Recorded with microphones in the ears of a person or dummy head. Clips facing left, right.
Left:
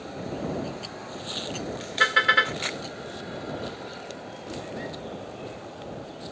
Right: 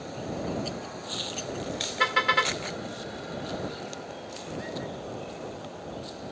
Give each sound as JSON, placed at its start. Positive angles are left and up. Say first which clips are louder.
{"t": 2.0, "sound": "a car horn", "louder": "left 1 dB", "side_deg": 10}